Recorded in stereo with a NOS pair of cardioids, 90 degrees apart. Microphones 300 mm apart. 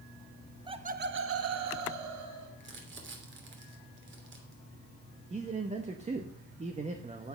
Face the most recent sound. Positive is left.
turn(degrees=-20)